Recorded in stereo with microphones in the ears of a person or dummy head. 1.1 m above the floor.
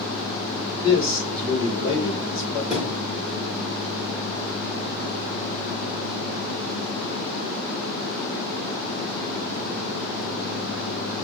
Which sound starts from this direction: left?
A man speaking, at 0.8 s.